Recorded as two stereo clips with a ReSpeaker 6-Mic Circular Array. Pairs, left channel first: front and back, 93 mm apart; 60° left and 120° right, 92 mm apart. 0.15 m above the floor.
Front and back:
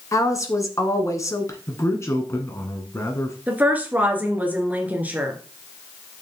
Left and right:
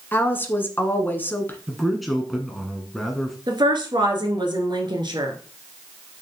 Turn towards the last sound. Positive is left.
turn(degrees=-110)